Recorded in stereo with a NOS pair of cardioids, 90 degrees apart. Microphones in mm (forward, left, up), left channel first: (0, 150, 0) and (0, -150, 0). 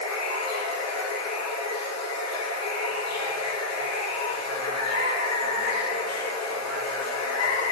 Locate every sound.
0.0 s running water: 60° left, 1.3 m